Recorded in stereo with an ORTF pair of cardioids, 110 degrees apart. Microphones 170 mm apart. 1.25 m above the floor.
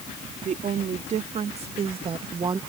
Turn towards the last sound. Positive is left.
turn(degrees=-25)